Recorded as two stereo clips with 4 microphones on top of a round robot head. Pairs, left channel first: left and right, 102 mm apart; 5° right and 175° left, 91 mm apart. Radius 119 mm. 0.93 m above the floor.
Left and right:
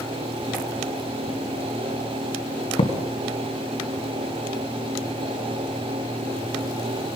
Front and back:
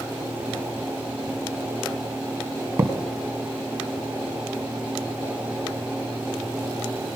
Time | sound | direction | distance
2.8 | a thud | 115° left | 1.9 m